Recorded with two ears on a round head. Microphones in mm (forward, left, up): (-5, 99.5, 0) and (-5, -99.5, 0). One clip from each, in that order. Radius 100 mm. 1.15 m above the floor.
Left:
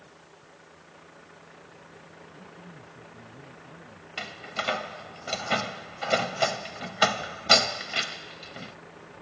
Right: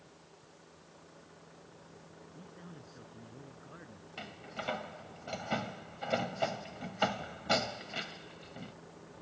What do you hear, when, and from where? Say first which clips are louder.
0.0 s a vehicle: left 6 dB; 60° left (ahead or behind); by 9.2 s 55° left (ahead or behind)
2.3 s a man speaking: left 5 dB; 85° right
4.2 s a door slam: left 10 dB; 55° left (ahead or behind)